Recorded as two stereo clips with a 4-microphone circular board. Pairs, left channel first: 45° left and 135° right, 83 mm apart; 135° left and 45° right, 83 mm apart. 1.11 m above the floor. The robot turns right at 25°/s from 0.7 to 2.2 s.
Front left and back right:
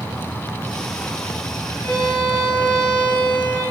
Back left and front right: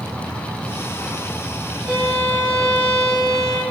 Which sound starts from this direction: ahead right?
A violin, at 1.8 s.